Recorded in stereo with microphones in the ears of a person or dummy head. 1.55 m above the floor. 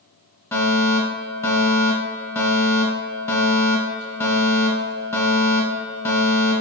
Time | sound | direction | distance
0.5 | a fire alarm | 15° left (ahead or behind) | 1.6 m